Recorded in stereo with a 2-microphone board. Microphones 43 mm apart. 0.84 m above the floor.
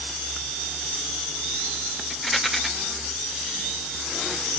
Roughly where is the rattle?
Centre.